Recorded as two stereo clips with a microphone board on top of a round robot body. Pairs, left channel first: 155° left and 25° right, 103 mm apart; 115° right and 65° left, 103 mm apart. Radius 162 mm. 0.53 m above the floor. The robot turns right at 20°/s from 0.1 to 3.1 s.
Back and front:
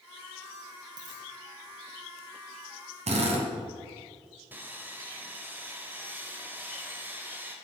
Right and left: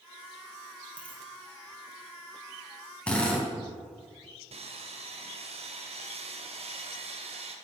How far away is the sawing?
About 2 m.